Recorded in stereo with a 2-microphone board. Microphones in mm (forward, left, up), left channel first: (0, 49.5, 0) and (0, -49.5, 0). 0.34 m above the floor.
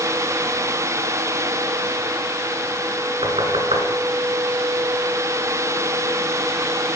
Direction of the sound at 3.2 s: 70° right (ahead or behind).